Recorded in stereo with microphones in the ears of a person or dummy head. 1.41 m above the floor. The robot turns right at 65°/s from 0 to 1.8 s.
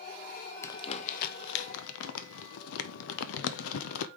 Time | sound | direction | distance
0.6 | crumpling | 25° left (ahead or behind) | 0.6 m